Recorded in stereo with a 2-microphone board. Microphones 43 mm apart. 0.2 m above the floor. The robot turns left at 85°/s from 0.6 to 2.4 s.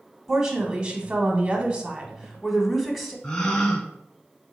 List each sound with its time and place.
0.3 s a woman speaking: 20° right, 1.1 m; by 3.1 s 175° right, 1.1 m
3.2 s a gasp: 15° left (ahead or behind), 1.0 m